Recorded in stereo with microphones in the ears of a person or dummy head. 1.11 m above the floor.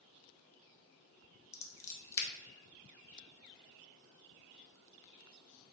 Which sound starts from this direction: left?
Scissors, at 1.5 s.